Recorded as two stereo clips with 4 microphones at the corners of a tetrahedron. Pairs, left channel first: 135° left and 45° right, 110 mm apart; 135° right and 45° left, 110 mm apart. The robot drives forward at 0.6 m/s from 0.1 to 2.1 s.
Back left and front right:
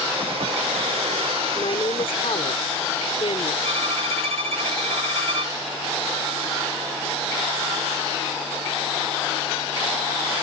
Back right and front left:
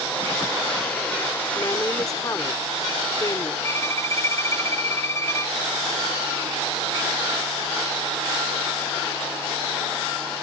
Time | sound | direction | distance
1.6 | a woman speaking | 170° left | ?
3.6 | a violin | 70° right | ?